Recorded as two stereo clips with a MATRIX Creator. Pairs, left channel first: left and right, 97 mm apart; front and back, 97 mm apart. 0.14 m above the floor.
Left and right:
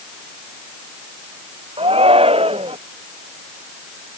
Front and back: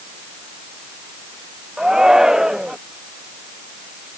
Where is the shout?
95° right.